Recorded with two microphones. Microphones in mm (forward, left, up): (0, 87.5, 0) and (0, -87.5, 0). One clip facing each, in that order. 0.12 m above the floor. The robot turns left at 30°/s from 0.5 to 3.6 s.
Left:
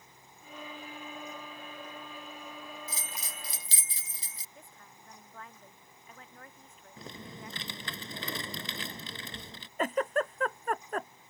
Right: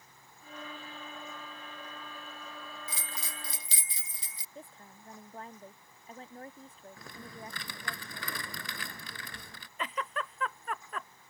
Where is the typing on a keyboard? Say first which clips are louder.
Left 3 dB; 25° left (ahead or behind).